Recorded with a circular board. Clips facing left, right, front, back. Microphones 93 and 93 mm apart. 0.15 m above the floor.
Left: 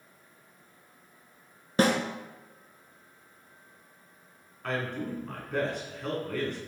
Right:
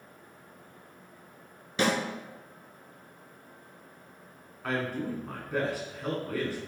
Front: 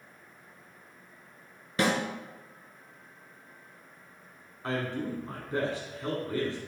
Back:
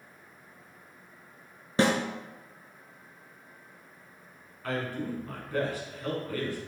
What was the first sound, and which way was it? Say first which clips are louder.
A snare drum: left 3 dB, back 3 dB; 125° left.